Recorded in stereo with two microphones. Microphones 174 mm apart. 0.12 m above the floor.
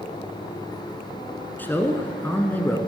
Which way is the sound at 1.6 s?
10° left (ahead or behind).